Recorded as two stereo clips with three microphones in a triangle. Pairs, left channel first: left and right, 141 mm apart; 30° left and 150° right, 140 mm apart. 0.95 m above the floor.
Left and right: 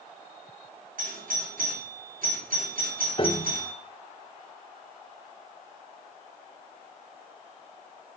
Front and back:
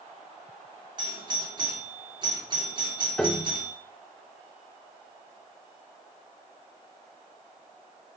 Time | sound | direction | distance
1.0 | a doorbell | 95° right | 3.5 m
3.2 | a piano | 115° left | 1.1 m